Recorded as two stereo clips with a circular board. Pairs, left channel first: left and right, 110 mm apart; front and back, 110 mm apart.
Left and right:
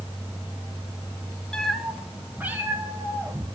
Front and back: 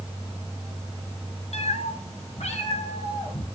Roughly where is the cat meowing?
Ahead.